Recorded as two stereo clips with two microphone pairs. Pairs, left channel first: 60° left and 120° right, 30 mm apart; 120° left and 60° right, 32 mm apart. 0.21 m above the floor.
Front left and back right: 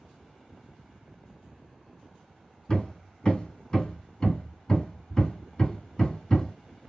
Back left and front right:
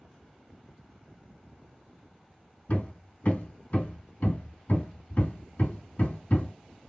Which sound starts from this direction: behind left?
Hammering, at 2.7 s.